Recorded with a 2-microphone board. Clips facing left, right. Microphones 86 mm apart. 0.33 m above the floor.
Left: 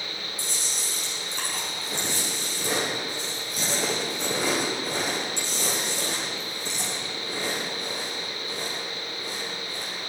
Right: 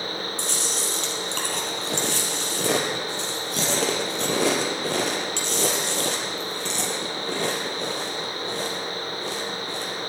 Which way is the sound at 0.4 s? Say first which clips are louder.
Right 6 dB; 75° right (ahead or behind).